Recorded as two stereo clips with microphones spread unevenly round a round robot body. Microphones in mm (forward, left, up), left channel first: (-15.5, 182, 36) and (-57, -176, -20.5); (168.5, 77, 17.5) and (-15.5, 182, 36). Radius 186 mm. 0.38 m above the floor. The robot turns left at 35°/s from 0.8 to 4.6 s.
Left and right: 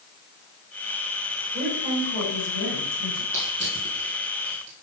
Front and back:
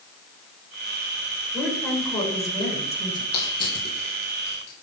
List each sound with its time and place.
1.5 s a woman speaking: 60° left, 5 m; by 3.2 s straight ahead, 5 m
3.3 s crushing: 25° right, 4 m; by 4.7 s 70° right, 4 m